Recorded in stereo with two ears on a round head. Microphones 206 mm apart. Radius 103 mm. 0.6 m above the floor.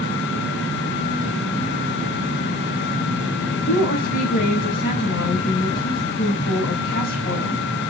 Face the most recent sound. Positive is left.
turn(degrees=40)  # may be behind; listen again after turning